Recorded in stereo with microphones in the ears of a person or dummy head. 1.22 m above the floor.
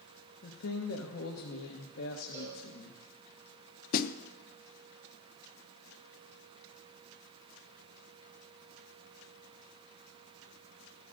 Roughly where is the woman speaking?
Left.